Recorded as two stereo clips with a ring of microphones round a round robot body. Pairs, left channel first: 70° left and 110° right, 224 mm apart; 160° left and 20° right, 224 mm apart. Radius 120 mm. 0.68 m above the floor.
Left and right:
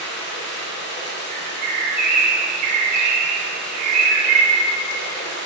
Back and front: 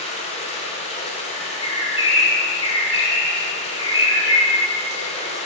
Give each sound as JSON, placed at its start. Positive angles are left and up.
{"t": 0.0, "sound": "running water", "azimuth_deg": 100, "distance_m": 1.3}
{"t": 1.3, "sound": "a bird", "azimuth_deg": -145, "distance_m": 1.3}